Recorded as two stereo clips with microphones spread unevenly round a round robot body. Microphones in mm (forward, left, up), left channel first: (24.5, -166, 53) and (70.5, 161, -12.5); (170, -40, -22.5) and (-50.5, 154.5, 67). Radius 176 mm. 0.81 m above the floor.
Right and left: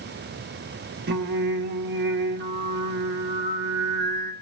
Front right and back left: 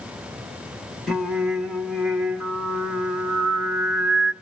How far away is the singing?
About 1.6 m.